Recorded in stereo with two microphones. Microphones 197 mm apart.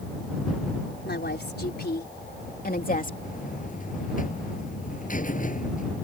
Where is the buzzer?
45° left (ahead or behind).